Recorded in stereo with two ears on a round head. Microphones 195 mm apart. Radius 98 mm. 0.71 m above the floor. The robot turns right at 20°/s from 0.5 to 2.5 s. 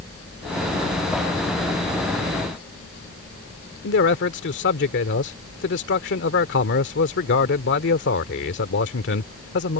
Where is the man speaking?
55° left (ahead or behind).